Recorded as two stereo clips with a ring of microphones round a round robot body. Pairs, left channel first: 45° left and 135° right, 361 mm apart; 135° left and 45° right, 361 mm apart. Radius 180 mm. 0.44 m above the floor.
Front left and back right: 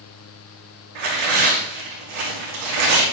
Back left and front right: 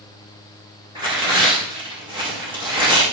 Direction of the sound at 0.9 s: 120° right.